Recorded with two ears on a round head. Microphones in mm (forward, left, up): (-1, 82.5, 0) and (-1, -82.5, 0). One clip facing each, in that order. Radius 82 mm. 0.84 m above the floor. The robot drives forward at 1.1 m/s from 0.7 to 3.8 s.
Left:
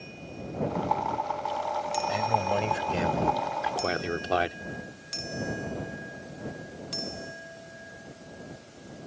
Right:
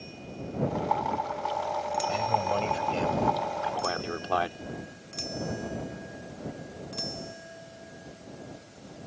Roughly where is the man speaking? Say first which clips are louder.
Left 2 dB; centre.